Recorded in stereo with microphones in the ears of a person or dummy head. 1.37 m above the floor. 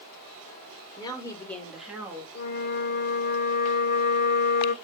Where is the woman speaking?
30° left (ahead or behind), 2.0 m; by 2.2 s 10° right (ahead or behind), 1.8 m.